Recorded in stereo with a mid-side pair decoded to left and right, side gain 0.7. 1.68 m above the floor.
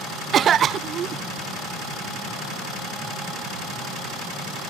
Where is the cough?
40° right.